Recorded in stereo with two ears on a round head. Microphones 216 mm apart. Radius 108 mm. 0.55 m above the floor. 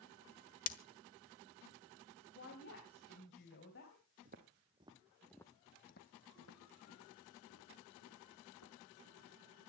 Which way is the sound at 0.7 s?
35° left (ahead or behind).